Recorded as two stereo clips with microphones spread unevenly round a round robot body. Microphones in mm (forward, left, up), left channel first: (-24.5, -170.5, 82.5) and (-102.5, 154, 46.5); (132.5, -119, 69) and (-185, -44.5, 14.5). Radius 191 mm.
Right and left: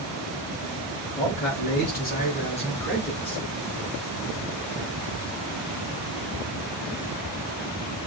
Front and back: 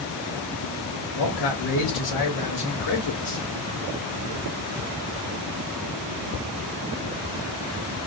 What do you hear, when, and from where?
1.1 s a man speaking: 20° right, 3 m; by 3.5 s 15° left, 2.5 m